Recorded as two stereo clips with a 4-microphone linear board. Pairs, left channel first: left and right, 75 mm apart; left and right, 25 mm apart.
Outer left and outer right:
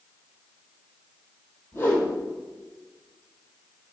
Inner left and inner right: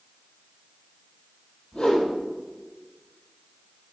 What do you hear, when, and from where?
1.7 s a whoosh: 30° left (ahead or behind), 4 m